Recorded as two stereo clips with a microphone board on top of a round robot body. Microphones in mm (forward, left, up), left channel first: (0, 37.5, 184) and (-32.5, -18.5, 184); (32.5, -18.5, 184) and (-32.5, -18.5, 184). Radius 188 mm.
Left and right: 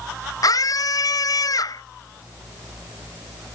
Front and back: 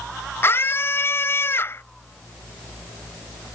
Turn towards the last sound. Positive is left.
turn(degrees=50)